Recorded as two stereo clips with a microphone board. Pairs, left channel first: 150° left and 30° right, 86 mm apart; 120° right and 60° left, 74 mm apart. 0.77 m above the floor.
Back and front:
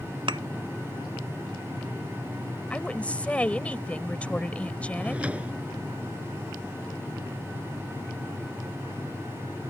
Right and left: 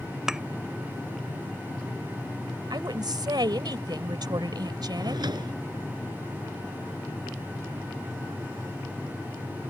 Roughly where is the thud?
Ahead.